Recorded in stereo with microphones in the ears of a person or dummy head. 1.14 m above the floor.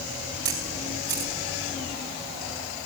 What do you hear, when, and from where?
0.5 s a camera shutter: 25° right (ahead or behind), 5 m